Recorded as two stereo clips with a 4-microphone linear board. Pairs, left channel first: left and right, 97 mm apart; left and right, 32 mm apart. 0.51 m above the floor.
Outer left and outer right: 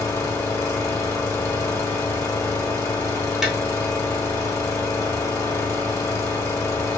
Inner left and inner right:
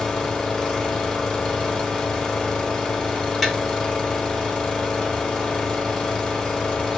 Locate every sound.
0.0 s an engine running: 25° left (ahead or behind), 0.7 m
3.4 s tapping: 5° right (ahead or behind), 0.7 m